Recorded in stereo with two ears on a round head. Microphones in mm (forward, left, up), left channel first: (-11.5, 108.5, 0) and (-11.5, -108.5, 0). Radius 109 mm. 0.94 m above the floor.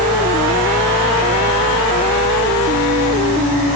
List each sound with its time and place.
Only background noise.